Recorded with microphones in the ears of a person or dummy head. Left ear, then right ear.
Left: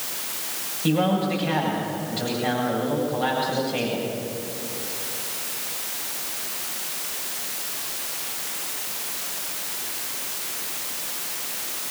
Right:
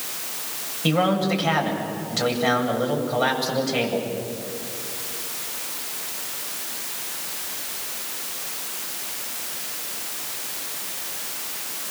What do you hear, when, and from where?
0.8 s a man speaking: 55° right (ahead or behind), 8 m